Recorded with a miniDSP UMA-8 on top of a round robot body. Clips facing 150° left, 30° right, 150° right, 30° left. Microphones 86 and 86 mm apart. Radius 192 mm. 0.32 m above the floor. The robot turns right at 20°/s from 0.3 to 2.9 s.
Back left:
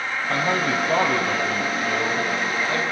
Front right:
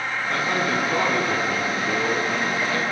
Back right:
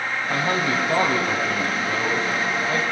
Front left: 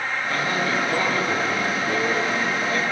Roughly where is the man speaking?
Behind left.